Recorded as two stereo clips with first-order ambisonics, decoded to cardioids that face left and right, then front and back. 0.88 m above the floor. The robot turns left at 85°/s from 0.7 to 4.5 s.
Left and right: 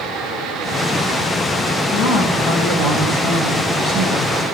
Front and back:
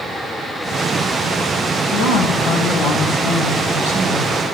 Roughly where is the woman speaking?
Ahead.